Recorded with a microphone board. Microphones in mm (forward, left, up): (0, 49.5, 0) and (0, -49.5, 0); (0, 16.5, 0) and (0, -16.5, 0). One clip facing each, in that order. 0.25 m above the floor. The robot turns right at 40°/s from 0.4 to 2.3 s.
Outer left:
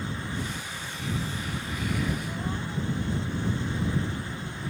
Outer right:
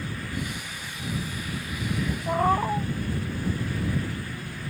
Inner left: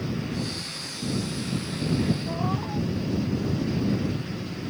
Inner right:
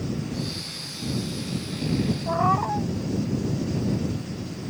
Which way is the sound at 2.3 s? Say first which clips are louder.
Outer right 11 dB, inner right 7 dB; 75° right (ahead or behind).